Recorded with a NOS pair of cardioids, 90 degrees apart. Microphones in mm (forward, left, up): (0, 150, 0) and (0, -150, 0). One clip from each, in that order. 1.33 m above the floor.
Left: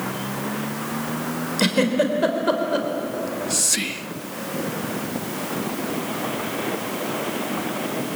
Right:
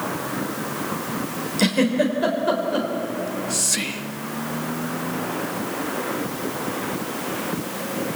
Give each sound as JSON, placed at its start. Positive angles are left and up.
{"t": 1.6, "sound": "a giggle", "azimuth_deg": 15, "distance_m": 4.0}
{"t": 3.1, "sound": "whispering", "azimuth_deg": 15, "distance_m": 0.9}